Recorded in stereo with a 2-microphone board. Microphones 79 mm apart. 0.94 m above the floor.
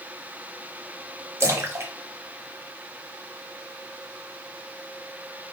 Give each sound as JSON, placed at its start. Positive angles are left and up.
{"t": 1.4, "sound": "a splash", "side_deg": -35, "distance_m": 1.1}